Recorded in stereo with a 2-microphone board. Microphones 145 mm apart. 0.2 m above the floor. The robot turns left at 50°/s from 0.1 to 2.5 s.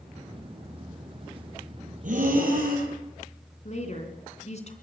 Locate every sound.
2.0 s breathing: 65° right (ahead or behind), 4.5 m; by 2.9 s 75° right (ahead or behind), 4.5 m
3.6 s a woman speaking: 50° left (ahead or behind), 2.5 m